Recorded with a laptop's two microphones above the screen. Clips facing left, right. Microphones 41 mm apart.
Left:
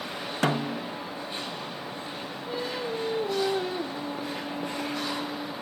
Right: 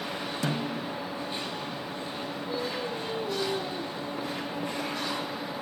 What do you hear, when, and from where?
0.4 s a snare drum: 55° left (ahead or behind), 0.9 m
2.5 s singing: 70° left (ahead or behind), 3.5 m